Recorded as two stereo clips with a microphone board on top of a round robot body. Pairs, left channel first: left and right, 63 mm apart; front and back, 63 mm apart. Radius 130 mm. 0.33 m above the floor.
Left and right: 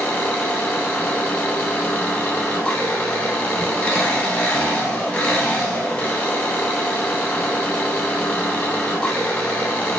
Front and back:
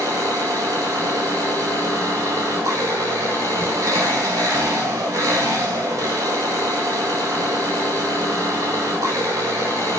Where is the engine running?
160° left, 3 m.